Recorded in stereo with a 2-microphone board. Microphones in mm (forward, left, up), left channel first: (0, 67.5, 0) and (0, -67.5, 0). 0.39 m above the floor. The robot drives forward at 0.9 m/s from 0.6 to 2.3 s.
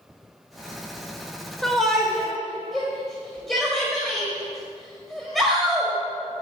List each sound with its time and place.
1.6 s a shout: 5° left (ahead or behind), 0.9 m; by 5.9 s centre (ahead or behind), 1.3 m